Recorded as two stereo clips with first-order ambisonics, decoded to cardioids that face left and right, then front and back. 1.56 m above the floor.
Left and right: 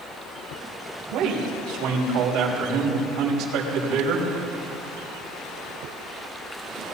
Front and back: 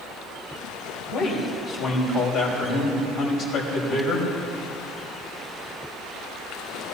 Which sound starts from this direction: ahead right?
A man speaking, at 1.1 s.